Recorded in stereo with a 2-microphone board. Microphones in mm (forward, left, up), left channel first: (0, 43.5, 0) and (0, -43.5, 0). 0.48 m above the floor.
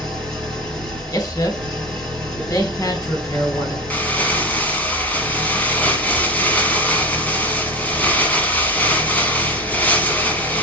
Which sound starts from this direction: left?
A man speaking, at 1.1 s.